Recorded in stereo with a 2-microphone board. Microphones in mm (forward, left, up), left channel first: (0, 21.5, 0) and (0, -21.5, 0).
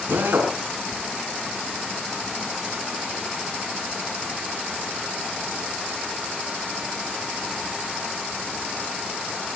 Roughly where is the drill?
Right.